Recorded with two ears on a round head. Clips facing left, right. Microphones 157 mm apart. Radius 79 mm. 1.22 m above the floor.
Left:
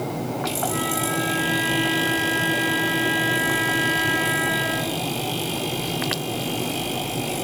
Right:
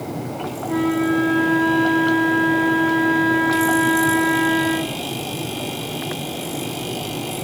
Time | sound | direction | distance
0.7 | a flute | 90° right | 4 m